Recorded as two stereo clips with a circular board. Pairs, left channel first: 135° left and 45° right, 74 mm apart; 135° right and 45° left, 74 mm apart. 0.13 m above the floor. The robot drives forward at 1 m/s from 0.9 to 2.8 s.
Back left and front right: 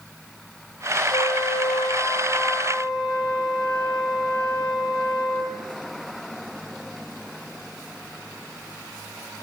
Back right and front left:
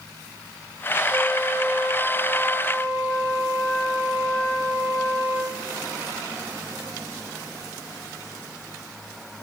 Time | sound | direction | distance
1.1 | a flute | 135° left | 0.7 m